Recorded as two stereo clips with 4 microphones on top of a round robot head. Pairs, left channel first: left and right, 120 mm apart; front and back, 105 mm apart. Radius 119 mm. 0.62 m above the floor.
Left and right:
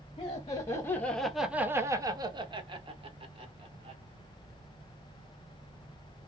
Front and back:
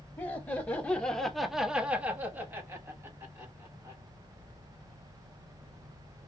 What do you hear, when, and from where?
0.2 s laughter: 55° left, 0.9 m; by 4.0 s 120° right, 1.6 m